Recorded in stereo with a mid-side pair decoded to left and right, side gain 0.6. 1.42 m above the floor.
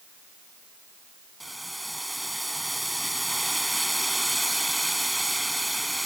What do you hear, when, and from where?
1.4 s boiling: 5° right